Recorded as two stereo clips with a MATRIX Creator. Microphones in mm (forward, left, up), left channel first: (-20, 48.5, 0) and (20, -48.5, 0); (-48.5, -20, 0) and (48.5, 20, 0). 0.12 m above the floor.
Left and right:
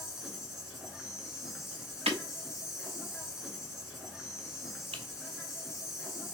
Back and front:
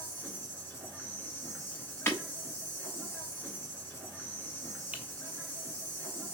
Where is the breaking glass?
90° right, 1.0 m.